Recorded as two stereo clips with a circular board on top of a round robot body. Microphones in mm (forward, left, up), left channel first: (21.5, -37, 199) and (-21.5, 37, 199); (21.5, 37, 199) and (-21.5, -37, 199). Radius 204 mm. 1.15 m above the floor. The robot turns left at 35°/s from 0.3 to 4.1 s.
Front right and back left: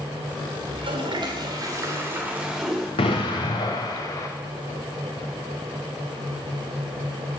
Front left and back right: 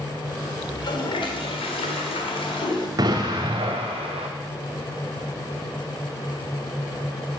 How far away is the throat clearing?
No throat clearing in this recording.